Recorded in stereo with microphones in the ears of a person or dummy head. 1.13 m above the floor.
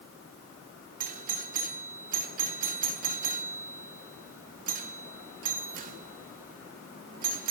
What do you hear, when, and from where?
1.0 s a doorbell: 45° right (ahead or behind), 3 m